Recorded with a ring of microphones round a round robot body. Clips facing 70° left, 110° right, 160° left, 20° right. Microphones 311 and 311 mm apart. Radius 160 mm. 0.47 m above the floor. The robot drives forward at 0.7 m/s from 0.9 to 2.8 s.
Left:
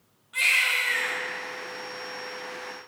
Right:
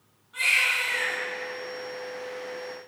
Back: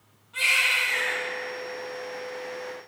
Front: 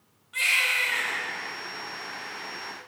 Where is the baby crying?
30° left, 2.0 m; by 1.2 s 35° left, 1.8 m.